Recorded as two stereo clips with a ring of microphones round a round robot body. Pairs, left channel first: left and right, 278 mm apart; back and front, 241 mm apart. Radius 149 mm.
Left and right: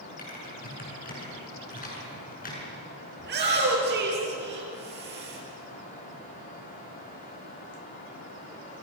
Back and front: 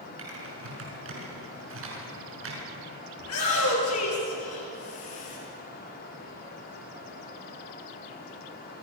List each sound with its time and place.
0.2 s typing on a keyboard: 30° left, 6.5 m
3.2 s a shout: 145° right, 9 m